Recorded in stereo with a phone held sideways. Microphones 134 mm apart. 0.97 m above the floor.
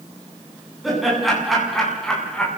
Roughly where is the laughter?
Centre.